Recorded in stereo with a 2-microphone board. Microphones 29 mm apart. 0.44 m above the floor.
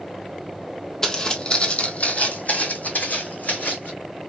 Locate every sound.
1.0 s footsteps: 20° left (ahead or behind), 0.8 m; by 3.9 s 75° left (ahead or behind), 1.9 m